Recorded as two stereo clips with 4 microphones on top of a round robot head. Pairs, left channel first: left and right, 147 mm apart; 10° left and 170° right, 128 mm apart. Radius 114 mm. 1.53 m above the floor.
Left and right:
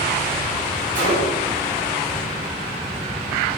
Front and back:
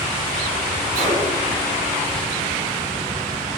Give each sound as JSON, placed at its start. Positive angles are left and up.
{"t": 0.9, "sound": "a gunshot", "azimuth_deg": -140, "distance_m": 4.5}